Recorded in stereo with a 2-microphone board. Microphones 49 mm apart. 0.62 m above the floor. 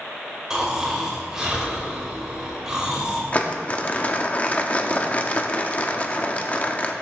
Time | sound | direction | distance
0.5 | snoring | 15° right (ahead or behind) | 3 m
3.3 | crumpling | 30° left (ahead or behind) | 0.7 m